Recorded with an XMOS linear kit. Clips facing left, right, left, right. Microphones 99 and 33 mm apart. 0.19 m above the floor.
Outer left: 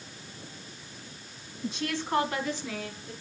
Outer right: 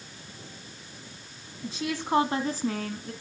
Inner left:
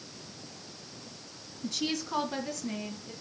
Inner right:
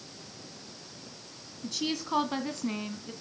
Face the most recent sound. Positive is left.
turn(degrees=-55)  # may be behind; listen again after turning